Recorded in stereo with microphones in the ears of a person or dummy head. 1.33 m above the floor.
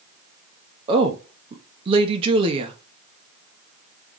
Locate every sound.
0.9 s a woman speaking: 35° right (ahead or behind), 0.7 m